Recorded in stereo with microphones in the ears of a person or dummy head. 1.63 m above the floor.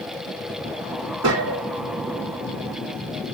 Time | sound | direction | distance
1.2 | a gunshot | 65° right (ahead or behind) | 1.5 m